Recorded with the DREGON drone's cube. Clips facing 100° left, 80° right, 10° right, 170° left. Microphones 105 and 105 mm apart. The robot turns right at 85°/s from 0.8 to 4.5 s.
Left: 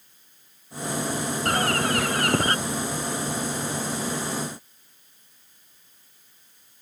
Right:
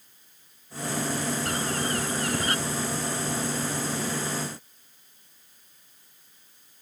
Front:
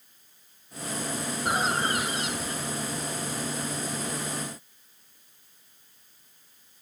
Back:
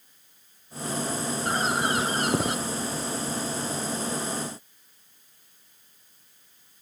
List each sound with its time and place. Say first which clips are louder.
1.4 s a bird: left 5 dB, even; 60° left; by 2.5 s 155° left